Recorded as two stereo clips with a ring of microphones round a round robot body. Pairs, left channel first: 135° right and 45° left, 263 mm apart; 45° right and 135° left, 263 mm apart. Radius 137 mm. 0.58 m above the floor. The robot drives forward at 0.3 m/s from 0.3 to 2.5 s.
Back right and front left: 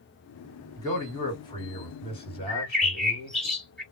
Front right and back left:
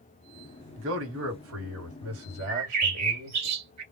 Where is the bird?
140° left, 1.5 m.